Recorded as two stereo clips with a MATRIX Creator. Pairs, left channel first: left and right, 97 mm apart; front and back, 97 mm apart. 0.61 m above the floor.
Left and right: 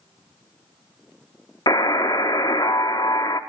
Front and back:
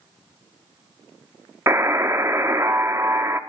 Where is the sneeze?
No sneeze in this recording.